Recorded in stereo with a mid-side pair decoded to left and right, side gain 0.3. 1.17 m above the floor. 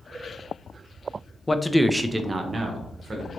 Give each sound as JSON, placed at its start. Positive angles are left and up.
{"t": 1.5, "sound": "a man speaking", "azimuth_deg": 20, "distance_m": 0.5}